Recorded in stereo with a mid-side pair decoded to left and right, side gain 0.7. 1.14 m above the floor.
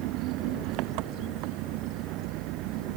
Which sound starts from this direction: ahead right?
An engine running, at 0.0 s.